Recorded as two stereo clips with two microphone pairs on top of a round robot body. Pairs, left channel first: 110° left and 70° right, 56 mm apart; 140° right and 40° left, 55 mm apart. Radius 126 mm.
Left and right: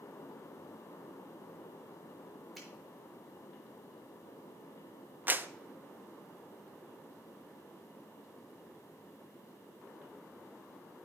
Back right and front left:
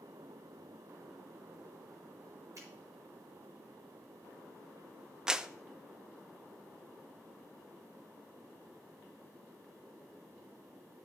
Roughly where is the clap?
Ahead.